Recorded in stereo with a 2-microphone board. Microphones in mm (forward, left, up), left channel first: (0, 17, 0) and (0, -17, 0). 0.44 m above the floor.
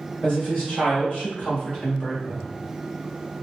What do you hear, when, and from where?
0.2 s a woman speaking: 40° left (ahead or behind), 1.7 m; by 2.5 s 30° left (ahead or behind), 1.1 m